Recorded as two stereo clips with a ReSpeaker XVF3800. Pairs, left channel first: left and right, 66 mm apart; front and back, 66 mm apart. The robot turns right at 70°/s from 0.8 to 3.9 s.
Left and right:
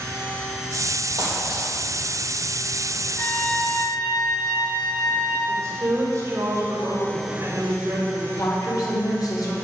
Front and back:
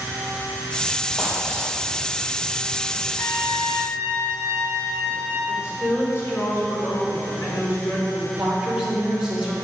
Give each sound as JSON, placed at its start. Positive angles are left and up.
{"t": 1.2, "sound": "a dropped coin", "azimuth_deg": -85, "distance_m": 4.0}
{"t": 3.2, "sound": "a trumpet", "azimuth_deg": 25, "distance_m": 4.0}
{"t": 5.5, "sound": "a woman speaking", "azimuth_deg": -45, "distance_m": 3.5}
{"t": 8.4, "sound": "a woman speaking", "azimuth_deg": 105, "distance_m": 3.0}